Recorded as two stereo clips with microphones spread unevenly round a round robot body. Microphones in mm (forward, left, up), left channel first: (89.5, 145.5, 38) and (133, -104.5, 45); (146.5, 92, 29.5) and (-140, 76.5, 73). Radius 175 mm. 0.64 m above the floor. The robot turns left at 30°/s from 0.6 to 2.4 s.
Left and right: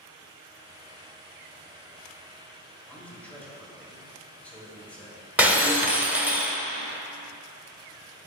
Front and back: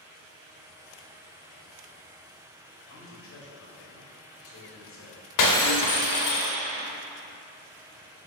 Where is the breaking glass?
5° left, 1.2 m.